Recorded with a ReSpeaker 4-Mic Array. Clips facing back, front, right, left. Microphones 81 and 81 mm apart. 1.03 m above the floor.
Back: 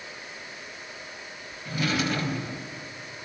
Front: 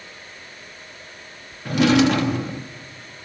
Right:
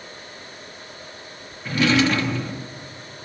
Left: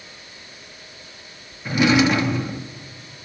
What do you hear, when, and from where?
1.6 s a drawer: 15° left, 1.0 m